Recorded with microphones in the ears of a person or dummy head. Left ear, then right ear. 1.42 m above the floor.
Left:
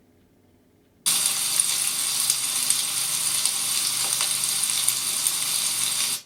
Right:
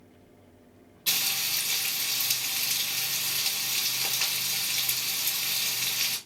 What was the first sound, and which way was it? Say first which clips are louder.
Frying: left 2 dB; 40° left (ahead or behind).